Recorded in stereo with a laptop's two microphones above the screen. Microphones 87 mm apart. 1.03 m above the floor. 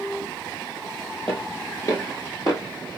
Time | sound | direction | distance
1.3 | footsteps | 30° left (ahead or behind) | 1.2 m